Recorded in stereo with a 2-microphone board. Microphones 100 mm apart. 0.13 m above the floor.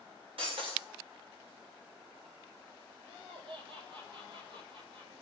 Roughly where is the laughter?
Right.